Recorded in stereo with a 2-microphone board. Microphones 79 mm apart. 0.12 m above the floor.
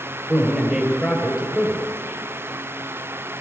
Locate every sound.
0.3 s a man speaking: 10° right (ahead or behind), 3 m